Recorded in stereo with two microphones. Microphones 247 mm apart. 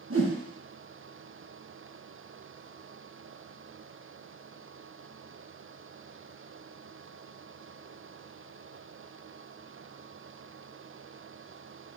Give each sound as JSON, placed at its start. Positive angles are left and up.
{"t": 0.1, "sound": "a whoosh", "side_deg": -60, "distance_m": 0.9}